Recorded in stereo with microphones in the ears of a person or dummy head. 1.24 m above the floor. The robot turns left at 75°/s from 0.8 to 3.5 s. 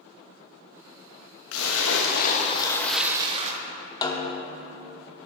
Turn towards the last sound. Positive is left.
turn(degrees=25)  # may be behind; listen again after turning